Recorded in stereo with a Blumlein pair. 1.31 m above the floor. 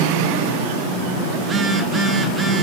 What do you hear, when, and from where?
1.4 s a phone buzzing: 15° right, 1.4 m